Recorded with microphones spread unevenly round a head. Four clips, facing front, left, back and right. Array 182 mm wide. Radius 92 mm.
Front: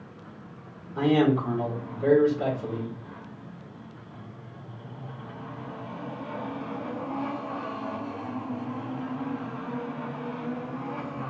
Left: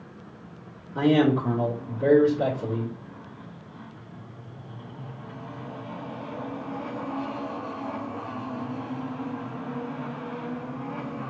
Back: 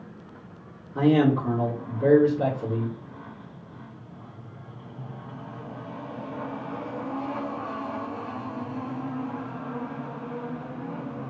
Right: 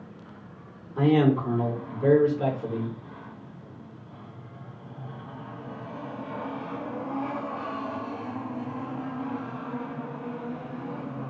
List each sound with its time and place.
0.9 s a man speaking: 135° left, 3 m